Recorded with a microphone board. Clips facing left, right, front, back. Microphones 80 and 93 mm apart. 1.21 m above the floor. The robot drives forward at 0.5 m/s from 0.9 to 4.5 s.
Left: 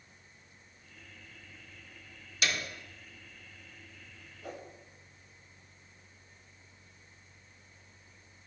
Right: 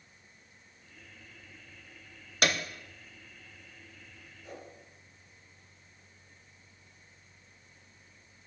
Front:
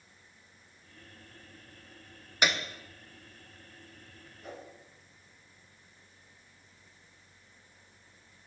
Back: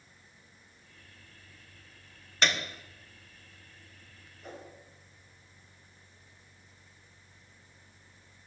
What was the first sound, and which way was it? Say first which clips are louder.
A piano: right 4 dB, even; 75° right.